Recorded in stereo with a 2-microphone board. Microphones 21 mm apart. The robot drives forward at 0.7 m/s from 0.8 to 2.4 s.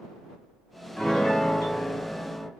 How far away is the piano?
About 2.0 m.